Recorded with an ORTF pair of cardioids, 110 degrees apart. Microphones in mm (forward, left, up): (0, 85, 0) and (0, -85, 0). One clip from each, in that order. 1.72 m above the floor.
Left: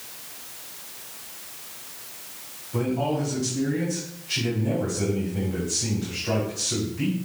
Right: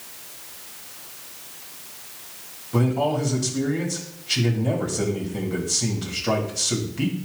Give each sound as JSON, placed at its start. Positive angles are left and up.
{"t": 2.7, "sound": "a man speaking", "azimuth_deg": -50, "distance_m": 3.0}